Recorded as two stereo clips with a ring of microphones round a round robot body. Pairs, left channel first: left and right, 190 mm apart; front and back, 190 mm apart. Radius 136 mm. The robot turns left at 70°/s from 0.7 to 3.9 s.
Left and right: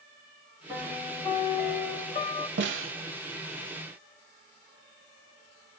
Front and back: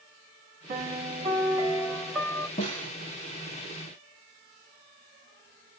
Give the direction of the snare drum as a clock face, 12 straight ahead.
2 o'clock.